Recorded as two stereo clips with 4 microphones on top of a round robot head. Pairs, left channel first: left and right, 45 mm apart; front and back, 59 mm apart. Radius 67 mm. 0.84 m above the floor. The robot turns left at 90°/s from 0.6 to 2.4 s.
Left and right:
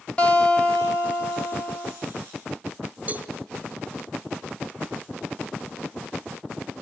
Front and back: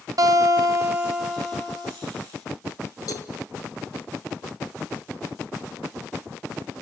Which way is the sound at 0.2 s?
160° left.